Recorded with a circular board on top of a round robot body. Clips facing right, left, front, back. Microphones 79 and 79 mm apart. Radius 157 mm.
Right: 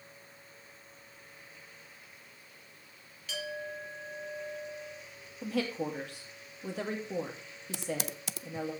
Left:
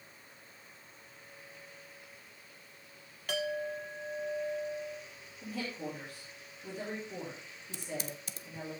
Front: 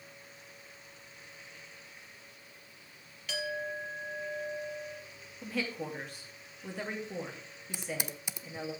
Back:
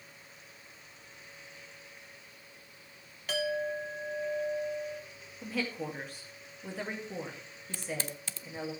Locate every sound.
3.3 s a clink: 135° left, 1.4 m
5.4 s a woman speaking: 95° right, 2 m
7.7 s typing on a keyboard: 75° right, 0.5 m